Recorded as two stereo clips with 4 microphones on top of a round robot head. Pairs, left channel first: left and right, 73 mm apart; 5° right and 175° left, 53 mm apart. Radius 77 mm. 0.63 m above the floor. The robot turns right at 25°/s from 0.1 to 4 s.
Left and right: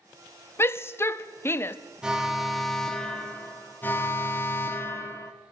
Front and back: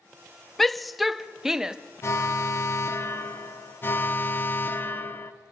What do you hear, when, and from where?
0.6 s a shout: 80° left, 0.6 m; by 1.8 s 110° left, 0.6 m
2.0 s an alarm: 15° right, 1.1 m; by 5.3 s 35° left, 1.1 m